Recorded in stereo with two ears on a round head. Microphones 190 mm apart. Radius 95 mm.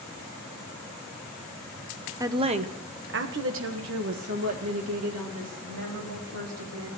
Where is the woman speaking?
15° right (ahead or behind), 0.8 m; by 6.9 s 85° right, 3 m.